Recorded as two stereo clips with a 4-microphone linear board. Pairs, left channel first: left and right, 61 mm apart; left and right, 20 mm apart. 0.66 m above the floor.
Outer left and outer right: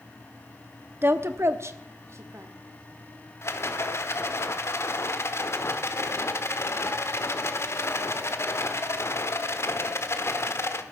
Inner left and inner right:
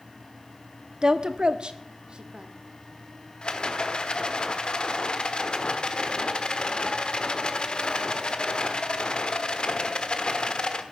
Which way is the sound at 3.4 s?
45° left (ahead or behind).